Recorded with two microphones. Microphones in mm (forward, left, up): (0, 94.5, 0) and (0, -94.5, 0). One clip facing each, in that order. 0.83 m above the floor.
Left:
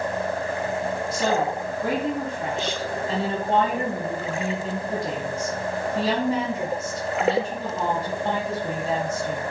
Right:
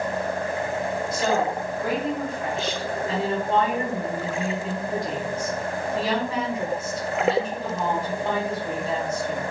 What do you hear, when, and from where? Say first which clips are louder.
1.1 s a woman speaking: even; 30° left (ahead or behind), 0.9 m